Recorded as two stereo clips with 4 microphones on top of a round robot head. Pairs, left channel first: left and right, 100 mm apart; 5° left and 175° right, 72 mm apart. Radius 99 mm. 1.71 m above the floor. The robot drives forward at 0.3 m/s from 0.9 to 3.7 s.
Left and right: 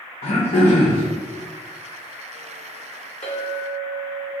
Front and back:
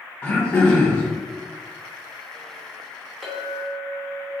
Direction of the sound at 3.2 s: 100° left.